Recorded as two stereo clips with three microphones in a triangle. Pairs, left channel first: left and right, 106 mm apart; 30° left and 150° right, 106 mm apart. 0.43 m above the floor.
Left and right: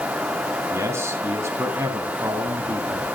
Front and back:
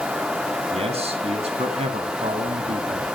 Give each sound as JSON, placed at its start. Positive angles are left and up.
{"t": 0.7, "sound": "a man speaking", "azimuth_deg": -155, "distance_m": 3.0}